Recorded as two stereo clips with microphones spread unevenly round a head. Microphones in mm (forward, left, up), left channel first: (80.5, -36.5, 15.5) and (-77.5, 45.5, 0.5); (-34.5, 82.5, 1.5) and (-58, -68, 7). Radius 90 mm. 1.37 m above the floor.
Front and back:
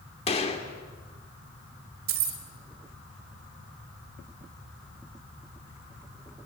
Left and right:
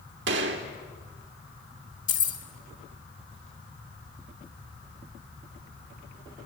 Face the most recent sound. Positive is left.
turn(degrees=115)